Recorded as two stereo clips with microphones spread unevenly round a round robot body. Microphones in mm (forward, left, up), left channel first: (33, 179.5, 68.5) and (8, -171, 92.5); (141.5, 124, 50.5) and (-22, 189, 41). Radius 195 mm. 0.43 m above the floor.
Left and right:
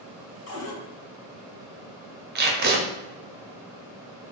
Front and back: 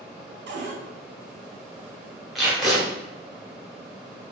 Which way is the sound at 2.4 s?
120° right.